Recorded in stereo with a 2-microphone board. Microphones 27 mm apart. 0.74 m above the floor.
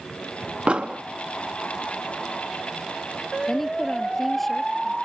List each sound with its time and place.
0.7 s an explosion: 45° right (ahead or behind)
3.5 s a woman speaking: 10° left (ahead or behind)